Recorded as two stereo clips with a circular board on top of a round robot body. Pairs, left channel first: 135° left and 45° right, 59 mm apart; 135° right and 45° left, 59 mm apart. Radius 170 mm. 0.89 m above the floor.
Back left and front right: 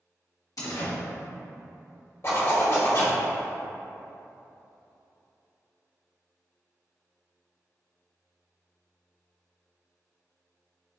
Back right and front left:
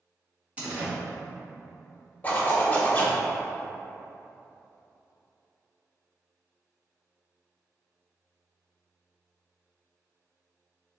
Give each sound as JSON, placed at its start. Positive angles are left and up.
{"t": 0.6, "sound": "a door slam", "azimuth_deg": 115, "distance_m": 1.5}
{"t": 2.2, "sound": "a zipper", "azimuth_deg": 165, "distance_m": 1.6}